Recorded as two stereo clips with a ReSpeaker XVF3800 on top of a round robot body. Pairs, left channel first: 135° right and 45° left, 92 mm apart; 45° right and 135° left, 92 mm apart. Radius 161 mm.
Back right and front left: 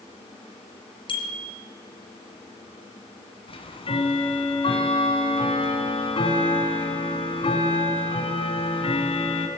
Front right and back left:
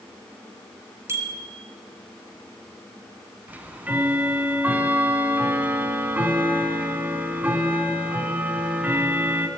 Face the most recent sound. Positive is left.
turn(degrees=-150)